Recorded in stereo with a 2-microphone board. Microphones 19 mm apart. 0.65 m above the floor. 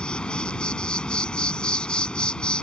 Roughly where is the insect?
Left.